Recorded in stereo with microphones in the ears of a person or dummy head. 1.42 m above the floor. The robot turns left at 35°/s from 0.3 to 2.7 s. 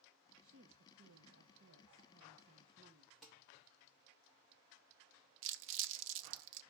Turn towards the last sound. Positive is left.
turn(degrees=-70)  # may be behind; listen again after turning